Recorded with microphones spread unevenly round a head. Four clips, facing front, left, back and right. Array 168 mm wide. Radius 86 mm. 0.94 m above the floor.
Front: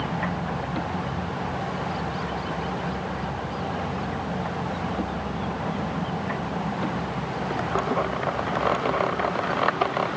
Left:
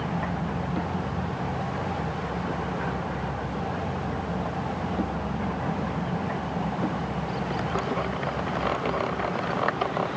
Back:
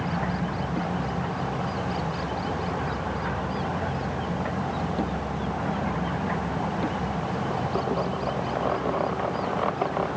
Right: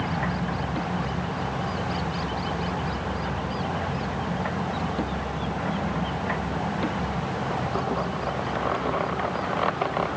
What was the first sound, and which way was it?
Only background noise.